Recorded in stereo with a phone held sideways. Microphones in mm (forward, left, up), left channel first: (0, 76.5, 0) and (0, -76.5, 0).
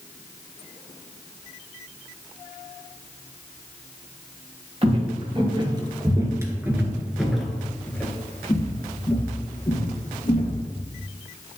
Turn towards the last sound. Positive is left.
turn(degrees=30)  # may be behind; listen again after turning